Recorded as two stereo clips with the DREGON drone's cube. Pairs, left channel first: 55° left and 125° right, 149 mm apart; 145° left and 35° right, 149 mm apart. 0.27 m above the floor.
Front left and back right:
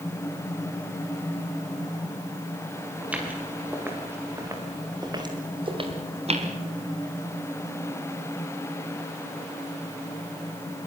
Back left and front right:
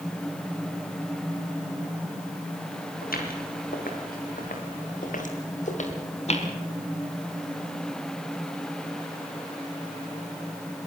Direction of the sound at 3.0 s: 155° left.